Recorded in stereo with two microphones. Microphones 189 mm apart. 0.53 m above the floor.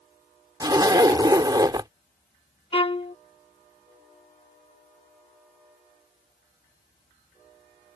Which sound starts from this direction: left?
A violin, at 2.7 s.